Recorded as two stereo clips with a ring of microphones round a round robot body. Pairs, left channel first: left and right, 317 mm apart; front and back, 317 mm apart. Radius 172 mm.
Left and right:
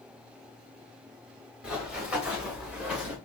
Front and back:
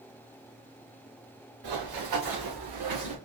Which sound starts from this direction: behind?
Running footsteps, at 1.6 s.